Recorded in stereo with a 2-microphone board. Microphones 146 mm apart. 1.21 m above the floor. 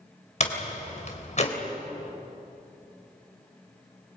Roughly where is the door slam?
Left.